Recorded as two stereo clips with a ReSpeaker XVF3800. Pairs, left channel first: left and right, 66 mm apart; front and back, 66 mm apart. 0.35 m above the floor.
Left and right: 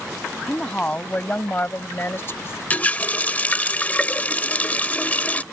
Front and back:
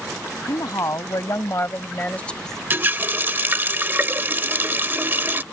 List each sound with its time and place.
0.5 s a woman speaking: 15° left; by 2.6 s 85° left
2.7 s a running tap: 140° left